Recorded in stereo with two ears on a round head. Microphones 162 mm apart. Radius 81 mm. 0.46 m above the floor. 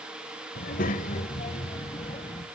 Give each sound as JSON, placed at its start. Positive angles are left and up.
{"t": 0.6, "sound": "a child speaking", "side_deg": 55, "distance_m": 1.6}